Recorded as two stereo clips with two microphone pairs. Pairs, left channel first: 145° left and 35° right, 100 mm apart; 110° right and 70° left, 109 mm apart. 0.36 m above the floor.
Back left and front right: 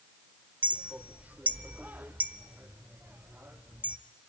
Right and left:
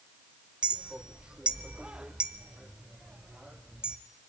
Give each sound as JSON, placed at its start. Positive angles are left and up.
{"t": 0.6, "sound": "a clink", "azimuth_deg": 5, "distance_m": 0.7}